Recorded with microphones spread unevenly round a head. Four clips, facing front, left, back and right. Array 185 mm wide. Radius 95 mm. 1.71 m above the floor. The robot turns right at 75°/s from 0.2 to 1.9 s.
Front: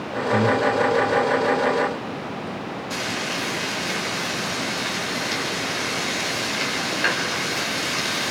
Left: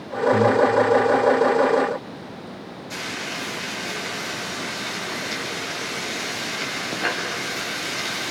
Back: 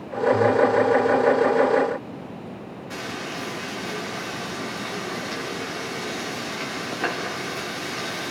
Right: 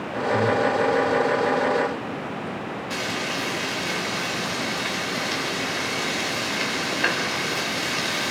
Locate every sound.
0.3 s breathing: 35° left, 1.9 m; by 0.6 s 55° left, 1.9 m
2.9 s frying: 170° left, 4 m